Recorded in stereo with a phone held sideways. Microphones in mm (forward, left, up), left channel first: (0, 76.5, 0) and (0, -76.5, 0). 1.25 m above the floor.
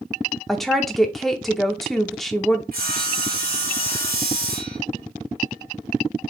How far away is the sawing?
About 1.3 m.